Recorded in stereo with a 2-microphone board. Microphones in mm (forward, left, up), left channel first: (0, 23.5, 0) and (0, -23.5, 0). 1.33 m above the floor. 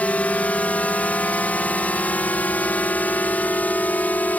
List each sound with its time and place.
0.0 s a drone: 30° left (ahead or behind); by 4.4 s 35° left (ahead or behind)